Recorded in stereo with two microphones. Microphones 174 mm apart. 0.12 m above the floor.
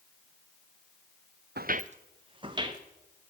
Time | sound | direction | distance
1.6 | footsteps | 70° right (ahead or behind) | 0.5 m